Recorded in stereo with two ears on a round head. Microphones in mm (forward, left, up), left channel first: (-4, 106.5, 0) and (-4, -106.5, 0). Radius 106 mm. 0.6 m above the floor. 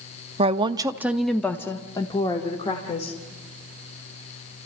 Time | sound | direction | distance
0.4 | a woman speaking | 25° right (ahead or behind) | 0.7 m